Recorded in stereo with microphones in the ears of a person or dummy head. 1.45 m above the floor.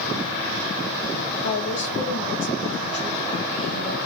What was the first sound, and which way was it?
A woman speaking, 80° left.